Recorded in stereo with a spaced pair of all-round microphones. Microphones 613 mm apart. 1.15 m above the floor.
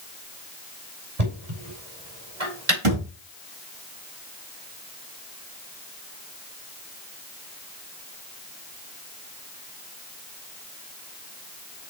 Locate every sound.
1.2 s knocking: 85° right, 5 m
2.8 s a thud: 60° right (ahead or behind), 3 m